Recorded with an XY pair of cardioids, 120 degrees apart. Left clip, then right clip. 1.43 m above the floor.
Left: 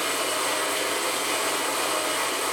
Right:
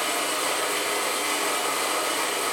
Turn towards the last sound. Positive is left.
turn(degrees=0)